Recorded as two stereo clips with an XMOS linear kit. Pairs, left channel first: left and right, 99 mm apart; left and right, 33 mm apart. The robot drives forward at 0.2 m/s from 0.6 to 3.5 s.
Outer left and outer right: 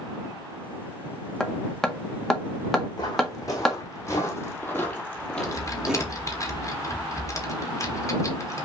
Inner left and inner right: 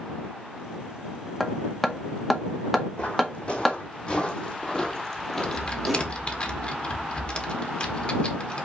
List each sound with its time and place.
1.4 s hammering: 5° left (ahead or behind), 0.6 m
3.0 s footsteps: 45° left (ahead or behind), 2.5 m; by 6.4 s 20° right (ahead or behind), 1.1 m
5.4 s typing on a keyboard: 35° left (ahead or behind), 1.0 m